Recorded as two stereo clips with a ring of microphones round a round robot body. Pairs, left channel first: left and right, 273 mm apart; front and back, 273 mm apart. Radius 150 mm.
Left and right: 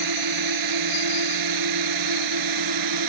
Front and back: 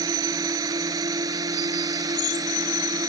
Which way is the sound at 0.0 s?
100° right.